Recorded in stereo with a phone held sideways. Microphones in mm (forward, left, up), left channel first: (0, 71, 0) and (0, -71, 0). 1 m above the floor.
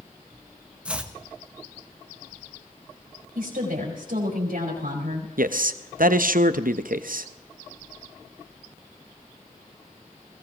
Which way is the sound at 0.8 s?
10° right (ahead or behind).